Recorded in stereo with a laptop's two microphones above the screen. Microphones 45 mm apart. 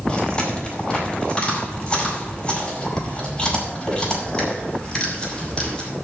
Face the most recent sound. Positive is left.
turn(degrees=20)  # may be behind; listen again after turning